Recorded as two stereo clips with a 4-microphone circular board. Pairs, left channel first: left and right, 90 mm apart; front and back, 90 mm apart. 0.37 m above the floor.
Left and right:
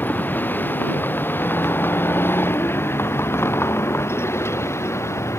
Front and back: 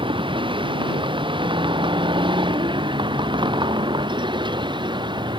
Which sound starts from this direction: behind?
A vehicle, at 0.0 s.